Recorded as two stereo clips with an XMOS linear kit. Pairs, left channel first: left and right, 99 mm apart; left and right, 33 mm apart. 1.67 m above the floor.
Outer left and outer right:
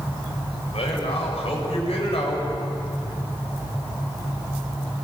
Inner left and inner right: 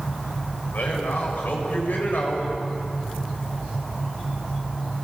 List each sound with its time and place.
0.7 s a man speaking: 75° left (ahead or behind), 8.5 m